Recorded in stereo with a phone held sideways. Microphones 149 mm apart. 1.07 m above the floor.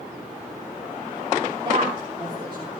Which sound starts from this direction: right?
A woman speaking, at 1.6 s.